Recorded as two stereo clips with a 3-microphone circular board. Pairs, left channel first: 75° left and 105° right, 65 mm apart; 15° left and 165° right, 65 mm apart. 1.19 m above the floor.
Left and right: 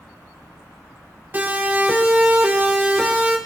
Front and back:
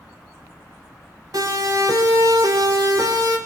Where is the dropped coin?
I don't hear a dropped coin.